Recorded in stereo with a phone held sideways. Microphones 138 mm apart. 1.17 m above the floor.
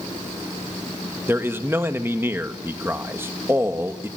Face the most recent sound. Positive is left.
turn(degrees=-15)  # may be behind; listen again after turning